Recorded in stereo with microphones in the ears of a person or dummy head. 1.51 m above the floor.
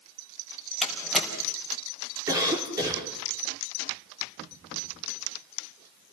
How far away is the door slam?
About 5 m.